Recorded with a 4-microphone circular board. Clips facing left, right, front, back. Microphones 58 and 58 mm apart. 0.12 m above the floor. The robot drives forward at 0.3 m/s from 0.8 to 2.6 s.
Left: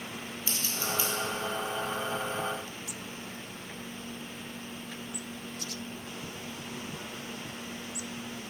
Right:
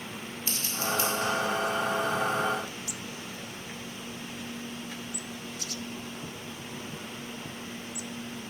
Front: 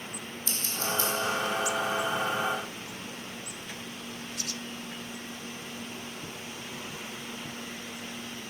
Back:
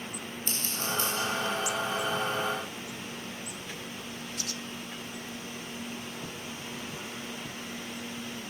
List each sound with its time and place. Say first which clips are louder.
0.5 s scissors: right 3 dB, front 2 dB; 160° right, 1.7 m